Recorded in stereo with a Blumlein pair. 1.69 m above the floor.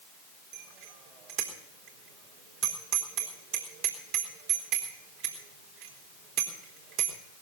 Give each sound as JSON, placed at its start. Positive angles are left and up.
{"t": 0.5, "sound": "a bicycle bell", "azimuth_deg": -45, "distance_m": 4.0}